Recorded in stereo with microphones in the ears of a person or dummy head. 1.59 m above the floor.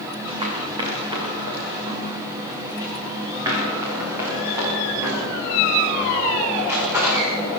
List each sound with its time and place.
0.3 s running footsteps: 25° right (ahead or behind), 5.5 m; by 7.6 s 10° right (ahead or behind), 9.5 m